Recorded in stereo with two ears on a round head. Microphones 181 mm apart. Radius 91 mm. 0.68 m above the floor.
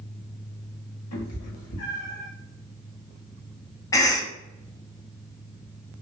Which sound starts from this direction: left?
A cat meowing, at 1.1 s.